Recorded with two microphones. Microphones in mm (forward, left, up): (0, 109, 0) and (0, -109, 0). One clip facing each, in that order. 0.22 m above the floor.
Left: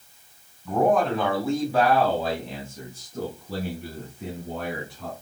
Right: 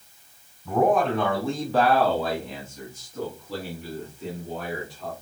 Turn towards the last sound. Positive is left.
turn(degrees=55)  # may be behind; listen again after turning